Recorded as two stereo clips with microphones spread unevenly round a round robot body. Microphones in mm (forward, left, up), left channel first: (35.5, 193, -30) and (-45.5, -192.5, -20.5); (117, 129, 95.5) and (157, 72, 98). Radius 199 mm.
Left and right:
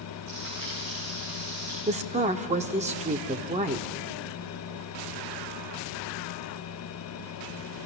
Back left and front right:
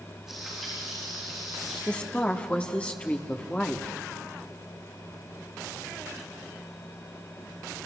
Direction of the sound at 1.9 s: 170° right.